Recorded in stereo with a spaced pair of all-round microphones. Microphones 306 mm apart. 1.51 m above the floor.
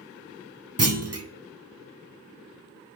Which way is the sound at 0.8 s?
50° right (ahead or behind).